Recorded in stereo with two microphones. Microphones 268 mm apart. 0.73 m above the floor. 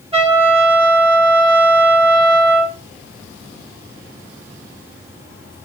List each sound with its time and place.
0.1 s a trumpet: 20° right (ahead or behind), 1.5 m